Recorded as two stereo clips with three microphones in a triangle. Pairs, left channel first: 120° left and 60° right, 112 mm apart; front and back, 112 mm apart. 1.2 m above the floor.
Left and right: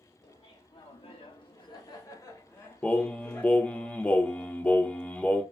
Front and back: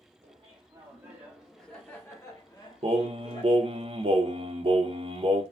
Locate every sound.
0.2 s laughter: 150° left, 0.8 m; by 3.8 s 40° left, 1.5 m
2.8 s singing: 160° right, 0.5 m